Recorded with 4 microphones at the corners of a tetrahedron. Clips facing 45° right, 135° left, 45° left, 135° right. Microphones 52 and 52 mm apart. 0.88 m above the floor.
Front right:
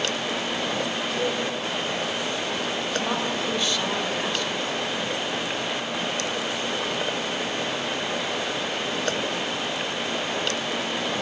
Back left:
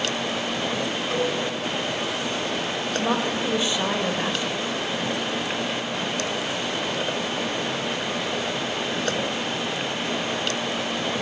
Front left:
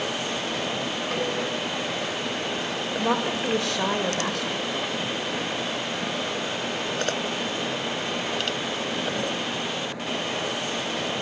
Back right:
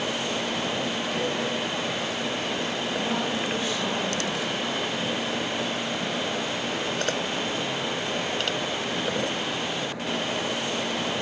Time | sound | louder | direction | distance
1.1 | a cowbell | back left 2 dB, front left 2 dB | 80° left | 7 m
3.0 | a woman speaking | back left 2 dB, front left 6 dB | 60° left | 3.5 m